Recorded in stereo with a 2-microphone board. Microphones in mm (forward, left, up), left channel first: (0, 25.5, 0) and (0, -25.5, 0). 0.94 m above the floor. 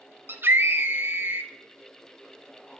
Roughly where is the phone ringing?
No phone ringing in this recording.